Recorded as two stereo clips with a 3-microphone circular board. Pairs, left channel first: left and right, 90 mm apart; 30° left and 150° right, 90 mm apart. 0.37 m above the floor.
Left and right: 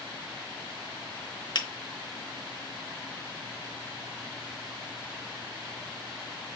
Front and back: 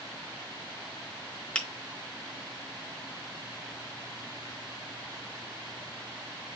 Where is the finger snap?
105° left, 1.0 m.